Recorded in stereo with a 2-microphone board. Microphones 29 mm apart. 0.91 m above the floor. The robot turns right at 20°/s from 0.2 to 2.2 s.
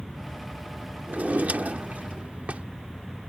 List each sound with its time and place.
1.1 s a drawer: 70° right (ahead or behind); by 2.6 s 60° right (ahead or behind)